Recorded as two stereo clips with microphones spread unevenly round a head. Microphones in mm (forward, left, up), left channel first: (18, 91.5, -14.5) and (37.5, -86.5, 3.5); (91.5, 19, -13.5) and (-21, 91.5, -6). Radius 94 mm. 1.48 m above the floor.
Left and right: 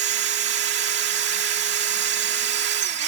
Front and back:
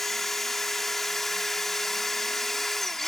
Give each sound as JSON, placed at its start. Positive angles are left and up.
{"t": 0.0, "sound": "a machine running", "azimuth_deg": -125}